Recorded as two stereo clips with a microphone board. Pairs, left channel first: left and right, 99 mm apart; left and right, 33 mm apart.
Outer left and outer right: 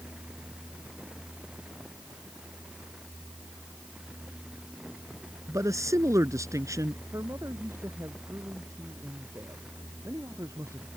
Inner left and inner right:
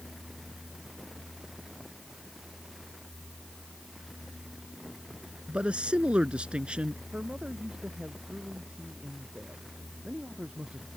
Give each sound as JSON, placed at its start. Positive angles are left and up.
{"t": 5.5, "sound": "a man speaking", "side_deg": -30}
{"t": 7.1, "sound": "a man speaking", "side_deg": -30}